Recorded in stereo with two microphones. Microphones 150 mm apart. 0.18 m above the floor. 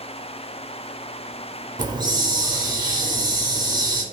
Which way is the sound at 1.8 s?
30° right (ahead or behind).